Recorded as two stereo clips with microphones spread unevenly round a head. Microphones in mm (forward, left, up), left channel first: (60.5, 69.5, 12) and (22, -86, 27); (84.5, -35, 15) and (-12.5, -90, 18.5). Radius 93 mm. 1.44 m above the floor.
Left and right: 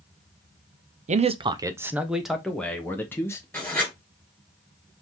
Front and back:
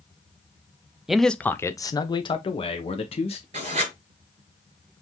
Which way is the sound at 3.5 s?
160° left.